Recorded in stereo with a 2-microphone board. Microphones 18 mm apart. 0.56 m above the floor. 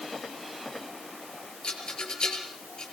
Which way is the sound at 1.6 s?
50° left (ahead or behind).